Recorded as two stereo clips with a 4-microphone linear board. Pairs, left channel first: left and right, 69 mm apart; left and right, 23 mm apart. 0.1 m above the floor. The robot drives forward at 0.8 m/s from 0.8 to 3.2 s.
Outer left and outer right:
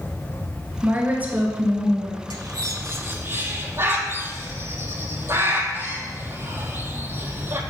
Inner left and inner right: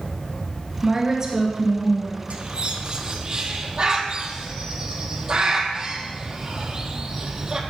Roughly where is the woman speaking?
Right.